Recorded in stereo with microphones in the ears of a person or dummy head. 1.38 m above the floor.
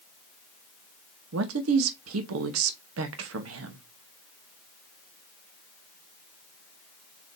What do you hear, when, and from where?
1.3 s a man speaking: 80° right, 0.7 m